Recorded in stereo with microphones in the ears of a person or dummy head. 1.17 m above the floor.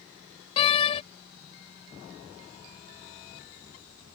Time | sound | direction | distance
0.6 | a door slam | 35° left (ahead or behind) | ?